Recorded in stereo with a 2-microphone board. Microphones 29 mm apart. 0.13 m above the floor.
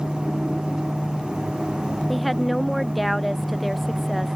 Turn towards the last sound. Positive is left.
turn(degrees=-5)  # may be behind; listen again after turning